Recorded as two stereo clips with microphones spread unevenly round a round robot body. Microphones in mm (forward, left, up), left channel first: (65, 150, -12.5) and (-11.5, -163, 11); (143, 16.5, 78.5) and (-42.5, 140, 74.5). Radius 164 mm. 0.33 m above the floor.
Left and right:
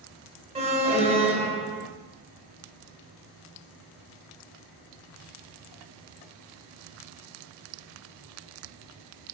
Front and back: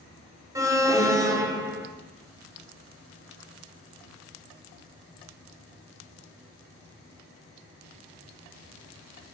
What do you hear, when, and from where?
0.6 s an alarm: 160° right, 0.9 m